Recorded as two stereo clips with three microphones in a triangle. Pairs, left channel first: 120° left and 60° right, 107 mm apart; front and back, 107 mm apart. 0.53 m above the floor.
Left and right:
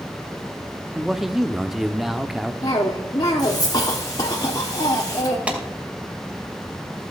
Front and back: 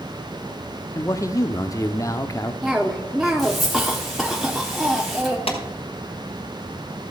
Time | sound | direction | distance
0.9 | a man speaking | 25° left | 0.7 m
2.6 | a cough | 90° left | 1.1 m
5.5 | a clap | 15° left | 2 m